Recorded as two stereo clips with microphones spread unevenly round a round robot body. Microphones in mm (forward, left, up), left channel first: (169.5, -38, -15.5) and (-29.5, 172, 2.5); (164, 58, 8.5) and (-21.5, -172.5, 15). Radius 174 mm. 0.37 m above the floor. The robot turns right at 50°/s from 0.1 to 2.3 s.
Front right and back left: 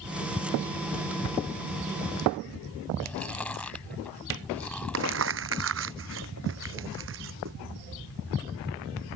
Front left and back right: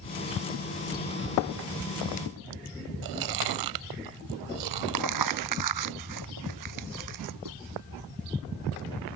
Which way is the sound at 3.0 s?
135° right.